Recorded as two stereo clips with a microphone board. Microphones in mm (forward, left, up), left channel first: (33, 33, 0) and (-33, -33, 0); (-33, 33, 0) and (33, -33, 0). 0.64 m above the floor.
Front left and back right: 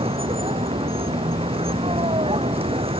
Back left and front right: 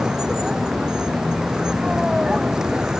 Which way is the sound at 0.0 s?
130° right.